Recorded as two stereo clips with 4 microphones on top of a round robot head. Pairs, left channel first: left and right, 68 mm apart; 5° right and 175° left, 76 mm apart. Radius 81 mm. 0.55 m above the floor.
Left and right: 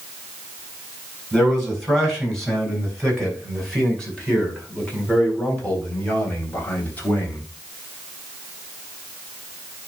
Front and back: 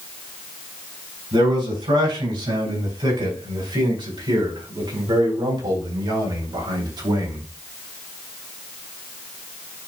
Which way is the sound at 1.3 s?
Straight behind.